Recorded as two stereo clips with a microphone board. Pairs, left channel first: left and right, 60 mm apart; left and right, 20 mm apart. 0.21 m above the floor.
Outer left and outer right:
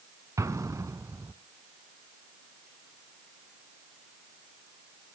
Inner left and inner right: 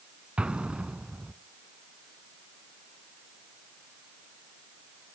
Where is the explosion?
65° right (ahead or behind), 0.6 m.